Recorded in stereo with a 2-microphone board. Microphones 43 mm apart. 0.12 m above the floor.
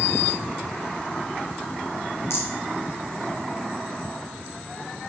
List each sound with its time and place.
2.3 s a rattle: 65° left (ahead or behind), 4.5 m